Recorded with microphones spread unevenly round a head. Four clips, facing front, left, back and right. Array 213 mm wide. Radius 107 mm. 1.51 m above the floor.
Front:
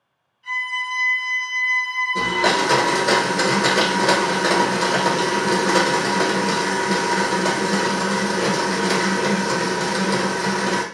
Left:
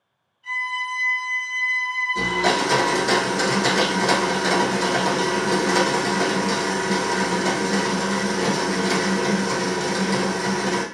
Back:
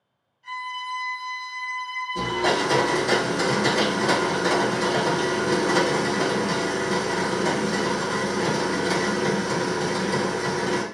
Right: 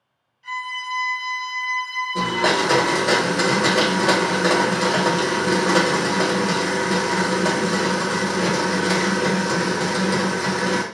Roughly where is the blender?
Ahead right.